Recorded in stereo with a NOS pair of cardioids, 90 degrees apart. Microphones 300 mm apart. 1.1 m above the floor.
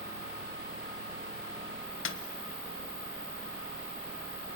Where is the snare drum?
45° left, 1.2 m.